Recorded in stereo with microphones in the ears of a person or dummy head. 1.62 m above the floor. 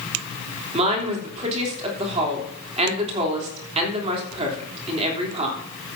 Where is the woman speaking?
30° right (ahead or behind), 3.5 m.